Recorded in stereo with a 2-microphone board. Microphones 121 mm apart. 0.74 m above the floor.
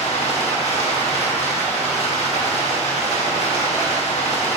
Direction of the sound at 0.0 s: 60° left (ahead or behind).